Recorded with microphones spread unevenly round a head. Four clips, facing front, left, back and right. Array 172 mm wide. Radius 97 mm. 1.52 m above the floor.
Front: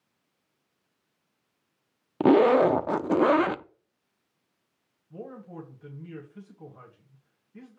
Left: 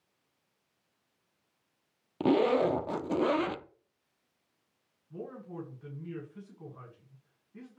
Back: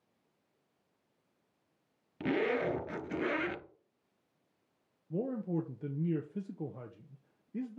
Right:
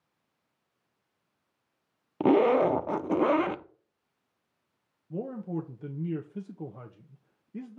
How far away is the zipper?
About 0.6 m.